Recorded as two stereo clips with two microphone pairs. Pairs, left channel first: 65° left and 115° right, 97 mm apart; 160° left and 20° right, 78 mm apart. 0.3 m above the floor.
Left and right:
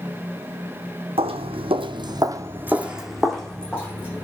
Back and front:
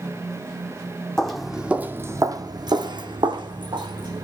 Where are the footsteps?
120° right, 1.0 m; by 4.2 s 10° right, 1.8 m.